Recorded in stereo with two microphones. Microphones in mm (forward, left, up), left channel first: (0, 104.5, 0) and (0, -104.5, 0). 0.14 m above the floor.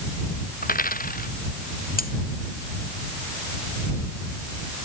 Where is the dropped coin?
45° left (ahead or behind).